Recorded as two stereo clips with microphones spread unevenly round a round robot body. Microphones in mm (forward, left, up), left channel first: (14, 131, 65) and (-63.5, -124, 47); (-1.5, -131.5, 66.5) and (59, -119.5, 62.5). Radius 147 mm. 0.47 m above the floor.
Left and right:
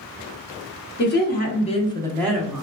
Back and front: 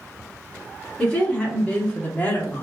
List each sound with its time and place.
1.0 s a woman speaking: 110° left, 1.1 m; by 2.6 s 170° right, 0.9 m